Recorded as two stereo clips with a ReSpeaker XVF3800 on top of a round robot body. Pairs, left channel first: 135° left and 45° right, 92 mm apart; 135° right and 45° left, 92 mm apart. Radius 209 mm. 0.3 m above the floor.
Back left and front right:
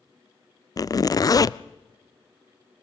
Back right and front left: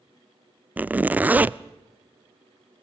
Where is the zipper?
110° left, 0.6 m.